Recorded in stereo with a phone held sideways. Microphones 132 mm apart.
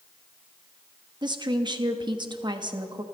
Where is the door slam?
No door slam in this recording.